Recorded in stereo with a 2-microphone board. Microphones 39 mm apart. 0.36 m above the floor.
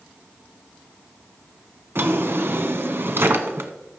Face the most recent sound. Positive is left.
turn(degrees=-70)  # may be behind; listen again after turning